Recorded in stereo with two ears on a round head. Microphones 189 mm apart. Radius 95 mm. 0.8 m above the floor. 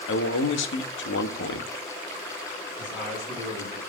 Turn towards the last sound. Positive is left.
turn(degrees=5)  # may be behind; listen again after turning